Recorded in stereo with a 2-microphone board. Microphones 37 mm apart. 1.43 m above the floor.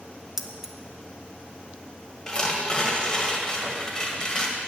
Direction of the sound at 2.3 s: 20° left (ahead or behind).